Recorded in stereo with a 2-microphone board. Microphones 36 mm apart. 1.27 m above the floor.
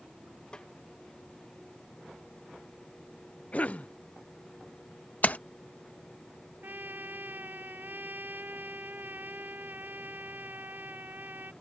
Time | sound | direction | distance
0.5 | a snare drum | 25° left (ahead or behind) | ?
3.5 | a cough | 40° left (ahead or behind) | ?
5.2 | a splash | 50° left (ahead or behind) | ?
6.6 | a trumpet | 60° right (ahead or behind) | ?